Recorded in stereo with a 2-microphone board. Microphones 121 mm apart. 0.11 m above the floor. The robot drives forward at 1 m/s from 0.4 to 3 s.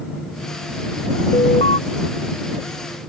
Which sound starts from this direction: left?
An alarm, at 1.3 s.